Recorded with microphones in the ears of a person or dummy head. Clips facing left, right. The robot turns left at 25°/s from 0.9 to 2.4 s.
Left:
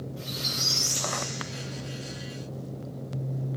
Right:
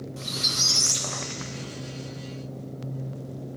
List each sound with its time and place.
0.2 s a squeak: 90° right, 1.4 m; by 2.4 s 130° right, 1.4 m